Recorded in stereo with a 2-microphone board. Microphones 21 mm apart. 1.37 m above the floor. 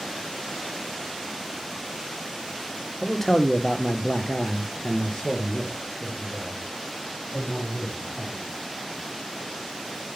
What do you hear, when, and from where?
3.0 s a man speaking: 15° left (ahead or behind), 0.7 m; by 8.4 s 25° left (ahead or behind), 2.5 m